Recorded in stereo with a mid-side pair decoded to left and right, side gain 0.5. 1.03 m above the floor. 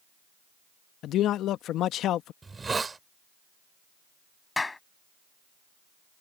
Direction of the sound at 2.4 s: 25° right.